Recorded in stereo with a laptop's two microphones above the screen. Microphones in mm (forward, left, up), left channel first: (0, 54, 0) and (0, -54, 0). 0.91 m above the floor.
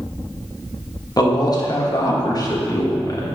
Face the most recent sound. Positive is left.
turn(degrees=35)  # may be behind; listen again after turning